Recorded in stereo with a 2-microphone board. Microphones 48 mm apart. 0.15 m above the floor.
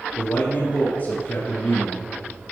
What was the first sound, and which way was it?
A man speaking, 40° left (ahead or behind).